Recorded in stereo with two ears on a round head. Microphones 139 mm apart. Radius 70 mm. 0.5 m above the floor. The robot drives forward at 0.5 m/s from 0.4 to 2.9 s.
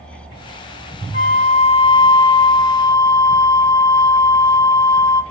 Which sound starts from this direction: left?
A flute, at 1.1 s.